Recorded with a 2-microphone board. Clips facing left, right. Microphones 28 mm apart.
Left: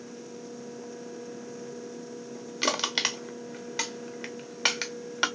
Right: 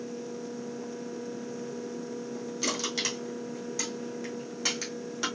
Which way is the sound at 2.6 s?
50° left (ahead or behind).